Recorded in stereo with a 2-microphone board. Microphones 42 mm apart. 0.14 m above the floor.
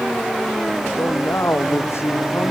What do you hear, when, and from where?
1.0 s a man speaking: 80° left